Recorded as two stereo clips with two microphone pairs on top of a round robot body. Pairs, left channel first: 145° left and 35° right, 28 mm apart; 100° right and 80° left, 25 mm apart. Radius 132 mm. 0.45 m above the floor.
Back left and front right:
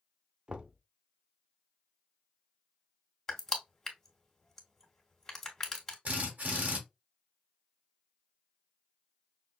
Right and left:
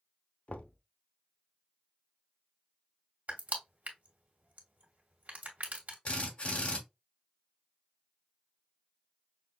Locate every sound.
0.5 s knocking: 85° right, 0.7 m
3.3 s crushing: 70° left, 2 m
6.0 s a drill: 60° right, 1.8 m